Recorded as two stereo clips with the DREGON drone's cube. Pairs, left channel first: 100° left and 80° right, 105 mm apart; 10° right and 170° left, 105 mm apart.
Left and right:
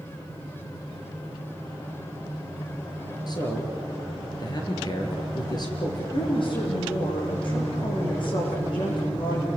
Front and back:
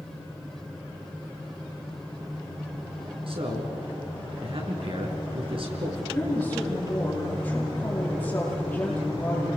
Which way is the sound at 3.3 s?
145° left.